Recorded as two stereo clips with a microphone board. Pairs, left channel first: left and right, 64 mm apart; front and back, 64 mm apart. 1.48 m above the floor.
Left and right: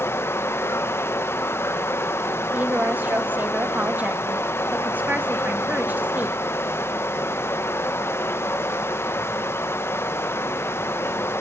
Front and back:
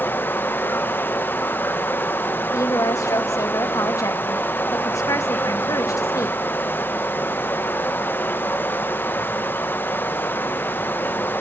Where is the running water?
50° left, 0.8 m.